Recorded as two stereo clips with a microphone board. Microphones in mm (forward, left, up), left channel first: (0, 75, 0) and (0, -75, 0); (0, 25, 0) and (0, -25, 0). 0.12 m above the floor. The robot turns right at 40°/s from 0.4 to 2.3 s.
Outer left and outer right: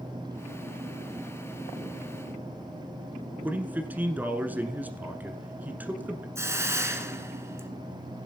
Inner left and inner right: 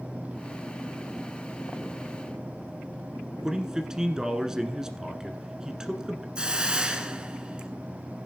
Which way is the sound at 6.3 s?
20° right (ahead or behind).